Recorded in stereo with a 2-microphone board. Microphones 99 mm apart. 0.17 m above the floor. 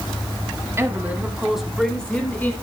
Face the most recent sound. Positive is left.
turn(degrees=20)  # may be behind; listen again after turning